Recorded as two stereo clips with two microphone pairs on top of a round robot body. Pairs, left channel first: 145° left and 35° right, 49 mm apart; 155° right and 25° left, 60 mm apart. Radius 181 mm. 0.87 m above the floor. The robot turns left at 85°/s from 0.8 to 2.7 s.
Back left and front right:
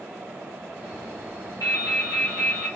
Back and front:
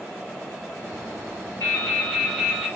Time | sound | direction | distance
1.6 | dripping | 155° left | 1.6 m